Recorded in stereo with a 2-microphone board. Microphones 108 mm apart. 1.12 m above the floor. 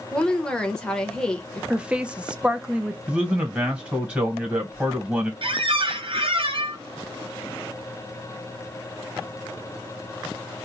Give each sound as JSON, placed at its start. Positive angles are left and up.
{"t": 0.1, "sound": "a woman speaking", "side_deg": 10, "distance_m": 0.9}
{"t": 1.7, "sound": "a woman speaking", "side_deg": -10, "distance_m": 0.5}
{"t": 3.1, "sound": "a man speaking", "side_deg": -10, "distance_m": 1.4}
{"t": 5.4, "sound": "a squeak", "side_deg": -60, "distance_m": 0.6}